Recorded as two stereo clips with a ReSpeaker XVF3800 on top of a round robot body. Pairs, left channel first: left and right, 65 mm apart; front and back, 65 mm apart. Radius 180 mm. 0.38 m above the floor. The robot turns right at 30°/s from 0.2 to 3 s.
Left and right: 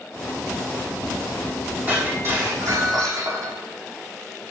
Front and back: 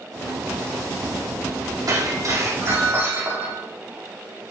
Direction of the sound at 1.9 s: 155° right.